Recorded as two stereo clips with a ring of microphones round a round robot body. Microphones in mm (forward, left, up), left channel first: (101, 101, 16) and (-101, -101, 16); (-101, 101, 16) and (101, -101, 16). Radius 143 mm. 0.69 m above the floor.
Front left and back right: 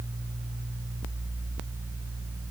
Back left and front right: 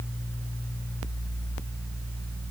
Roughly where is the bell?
I don't hear a bell.